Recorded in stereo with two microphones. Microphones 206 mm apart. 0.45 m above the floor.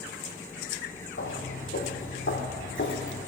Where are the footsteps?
80° left, 2.5 m; by 3.2 s 60° left (ahead or behind), 2.5 m.